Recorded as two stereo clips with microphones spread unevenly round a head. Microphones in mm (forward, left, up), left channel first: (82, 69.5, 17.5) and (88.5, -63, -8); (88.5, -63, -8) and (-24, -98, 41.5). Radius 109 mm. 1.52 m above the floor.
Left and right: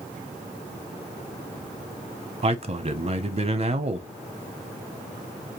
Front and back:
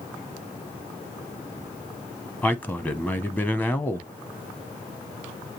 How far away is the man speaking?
About 0.9 m.